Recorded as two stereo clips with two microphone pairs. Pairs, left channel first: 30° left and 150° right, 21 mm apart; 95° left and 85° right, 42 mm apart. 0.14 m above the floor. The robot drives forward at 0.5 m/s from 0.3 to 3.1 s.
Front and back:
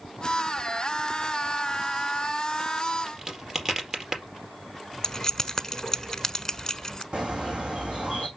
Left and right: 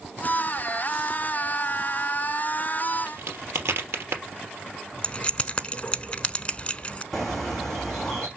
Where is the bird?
Straight behind, 4 m.